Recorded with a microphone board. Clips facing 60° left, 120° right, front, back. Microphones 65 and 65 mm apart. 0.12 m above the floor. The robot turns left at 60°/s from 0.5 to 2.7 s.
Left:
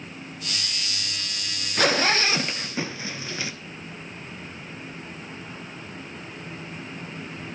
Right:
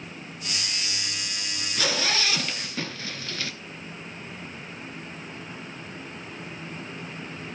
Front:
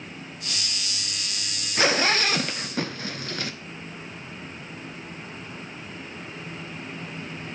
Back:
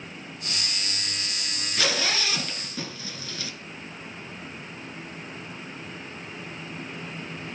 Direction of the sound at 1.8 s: 45° left.